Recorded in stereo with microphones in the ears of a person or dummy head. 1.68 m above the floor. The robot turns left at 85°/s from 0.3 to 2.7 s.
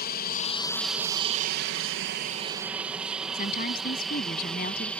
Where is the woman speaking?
45° left (ahead or behind).